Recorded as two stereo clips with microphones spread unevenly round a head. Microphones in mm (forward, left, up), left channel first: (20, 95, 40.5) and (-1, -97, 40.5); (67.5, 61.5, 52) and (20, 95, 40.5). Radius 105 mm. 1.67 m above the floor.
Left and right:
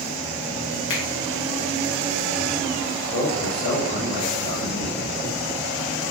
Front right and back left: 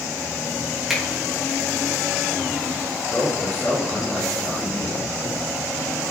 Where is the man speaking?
35° left, 3 m.